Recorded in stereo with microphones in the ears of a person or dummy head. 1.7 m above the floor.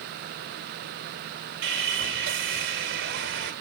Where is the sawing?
65° right (ahead or behind), 2.0 m.